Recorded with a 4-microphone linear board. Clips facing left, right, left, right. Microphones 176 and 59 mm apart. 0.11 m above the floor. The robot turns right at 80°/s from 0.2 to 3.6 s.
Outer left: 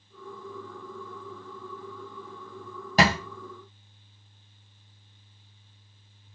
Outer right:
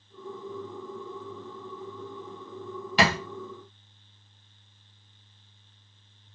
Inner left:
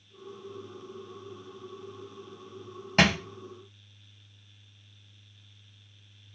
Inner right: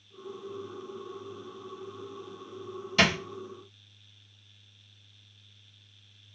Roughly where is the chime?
I don't hear a chime.